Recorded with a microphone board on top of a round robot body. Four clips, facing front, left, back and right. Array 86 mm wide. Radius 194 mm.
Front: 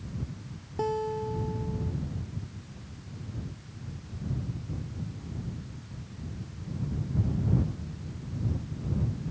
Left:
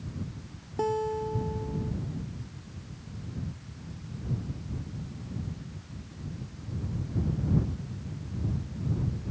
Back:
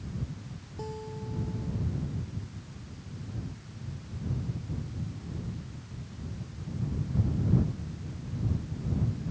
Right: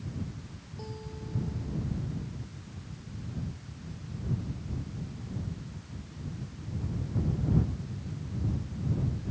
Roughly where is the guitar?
Ahead left.